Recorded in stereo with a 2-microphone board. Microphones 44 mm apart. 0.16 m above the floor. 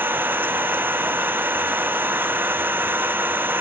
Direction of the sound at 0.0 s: 50° right (ahead or behind).